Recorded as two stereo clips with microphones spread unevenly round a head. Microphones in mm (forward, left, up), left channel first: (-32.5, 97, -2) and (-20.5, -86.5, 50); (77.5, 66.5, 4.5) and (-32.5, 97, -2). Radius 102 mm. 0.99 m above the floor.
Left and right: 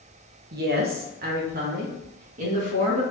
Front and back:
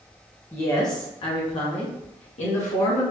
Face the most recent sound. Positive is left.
turn(degrees=-25)